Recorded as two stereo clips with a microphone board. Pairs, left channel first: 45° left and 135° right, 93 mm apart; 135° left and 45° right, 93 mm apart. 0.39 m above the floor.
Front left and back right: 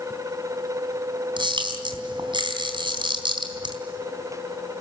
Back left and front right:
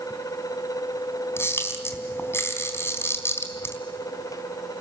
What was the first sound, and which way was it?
A camera shutter, 165° right.